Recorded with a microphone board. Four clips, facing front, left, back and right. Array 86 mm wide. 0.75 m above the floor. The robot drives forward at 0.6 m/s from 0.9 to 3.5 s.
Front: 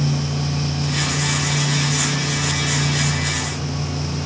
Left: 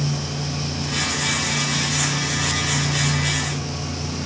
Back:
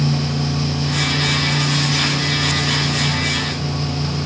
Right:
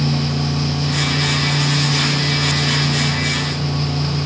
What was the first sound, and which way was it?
Only background noise.